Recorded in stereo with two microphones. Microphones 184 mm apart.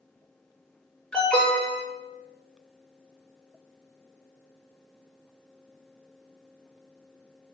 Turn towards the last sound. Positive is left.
turn(degrees=5)  # may be behind; listen again after turning